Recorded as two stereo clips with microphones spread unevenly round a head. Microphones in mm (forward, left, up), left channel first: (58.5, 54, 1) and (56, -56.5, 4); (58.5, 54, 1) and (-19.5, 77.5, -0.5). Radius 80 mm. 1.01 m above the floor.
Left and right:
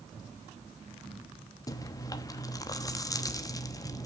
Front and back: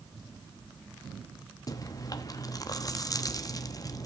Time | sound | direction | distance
1.7 | chewing | 30° left | 1.0 m